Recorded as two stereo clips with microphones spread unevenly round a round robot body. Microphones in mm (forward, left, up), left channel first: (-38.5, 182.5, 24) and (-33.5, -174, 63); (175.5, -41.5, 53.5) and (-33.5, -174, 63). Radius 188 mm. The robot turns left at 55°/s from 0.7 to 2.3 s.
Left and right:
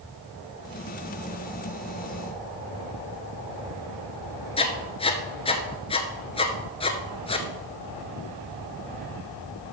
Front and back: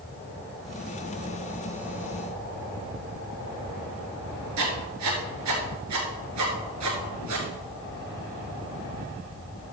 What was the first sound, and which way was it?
Writing, 170° left.